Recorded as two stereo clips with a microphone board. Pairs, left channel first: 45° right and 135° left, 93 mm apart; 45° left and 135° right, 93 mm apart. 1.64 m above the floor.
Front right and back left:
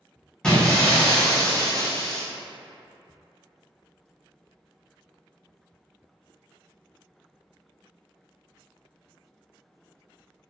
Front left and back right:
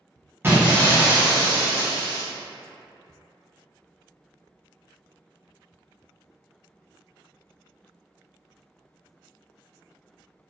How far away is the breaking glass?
About 0.7 m.